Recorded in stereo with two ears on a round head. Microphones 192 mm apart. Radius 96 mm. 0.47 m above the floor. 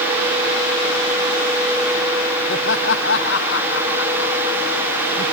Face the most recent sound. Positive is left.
turn(degrees=65)  # may be behind; listen again after turning